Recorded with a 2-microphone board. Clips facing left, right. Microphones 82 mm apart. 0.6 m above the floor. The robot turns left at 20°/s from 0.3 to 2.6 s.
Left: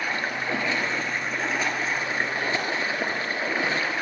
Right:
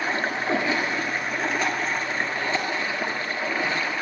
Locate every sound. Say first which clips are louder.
0.0 s running water: right 2 dB; 155° right, 1.3 m; by 4.0 s 160° left, 1.3 m